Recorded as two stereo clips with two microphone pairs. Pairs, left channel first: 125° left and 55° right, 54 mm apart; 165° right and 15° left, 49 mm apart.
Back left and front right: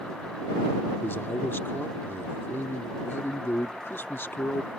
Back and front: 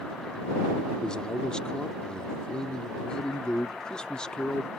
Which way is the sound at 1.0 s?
125° left.